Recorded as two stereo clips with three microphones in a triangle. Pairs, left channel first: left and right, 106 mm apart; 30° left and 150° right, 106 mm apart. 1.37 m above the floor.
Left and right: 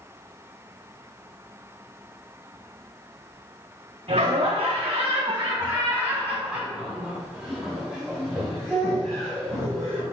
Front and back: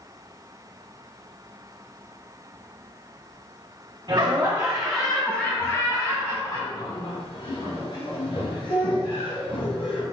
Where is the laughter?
100° right, 1.2 m; by 10.0 s 10° left, 4.5 m.